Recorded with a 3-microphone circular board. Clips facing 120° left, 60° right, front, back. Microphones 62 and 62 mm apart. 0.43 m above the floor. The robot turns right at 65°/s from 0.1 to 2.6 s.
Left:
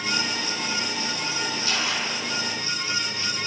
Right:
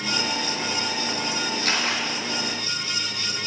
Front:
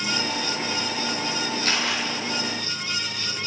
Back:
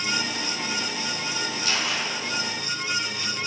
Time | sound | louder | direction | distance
1.6 | a camera shutter | right 3 dB, front 1 dB | 35° right | 6 m